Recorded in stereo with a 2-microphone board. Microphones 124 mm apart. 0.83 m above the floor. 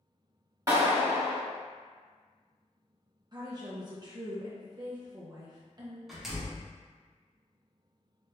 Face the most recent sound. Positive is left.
turn(degrees=0)  # may be behind; listen again after turning